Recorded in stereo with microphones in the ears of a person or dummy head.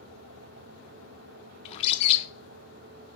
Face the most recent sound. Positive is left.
turn(degrees=35)  # may be behind; listen again after turning